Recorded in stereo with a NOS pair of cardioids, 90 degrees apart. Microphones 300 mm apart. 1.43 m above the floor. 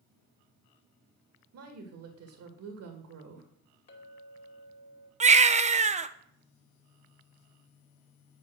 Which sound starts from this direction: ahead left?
A clink, at 3.9 s.